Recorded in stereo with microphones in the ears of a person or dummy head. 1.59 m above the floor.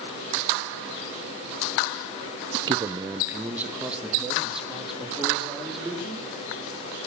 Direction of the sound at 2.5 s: 30° right (ahead or behind).